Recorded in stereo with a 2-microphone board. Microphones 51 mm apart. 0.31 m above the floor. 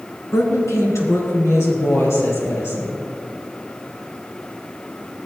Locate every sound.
0.3 s a woman speaking: 70° left (ahead or behind), 3 m; by 3.0 s 50° left (ahead or behind), 6 m